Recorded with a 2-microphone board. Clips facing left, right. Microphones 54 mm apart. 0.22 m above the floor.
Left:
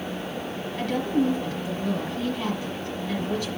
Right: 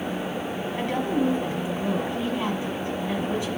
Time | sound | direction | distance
0.8 | a woman speaking | 25° right (ahead or behind) | 1.5 m